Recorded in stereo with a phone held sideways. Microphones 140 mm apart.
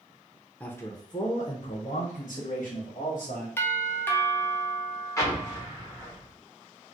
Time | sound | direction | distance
0.6 | a man speaking | 10° left (ahead or behind) | 0.6 m
3.6 | a doorbell | 15° left (ahead or behind) | 0.7 m
5.2 | an explosion | 20° left (ahead or behind) | 1.1 m